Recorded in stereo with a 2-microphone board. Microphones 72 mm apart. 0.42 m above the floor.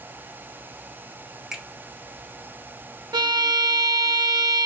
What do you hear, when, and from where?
1.5 s a finger snap: 10° right (ahead or behind), 1.0 m
3.1 s a violin: 75° right (ahead or behind), 0.6 m